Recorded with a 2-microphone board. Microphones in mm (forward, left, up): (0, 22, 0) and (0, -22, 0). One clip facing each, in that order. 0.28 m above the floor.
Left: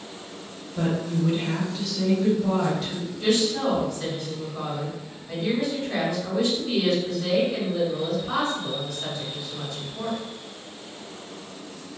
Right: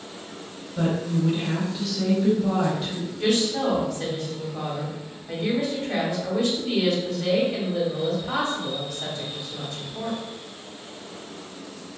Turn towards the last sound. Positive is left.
turn(degrees=-40)  # may be behind; listen again after turning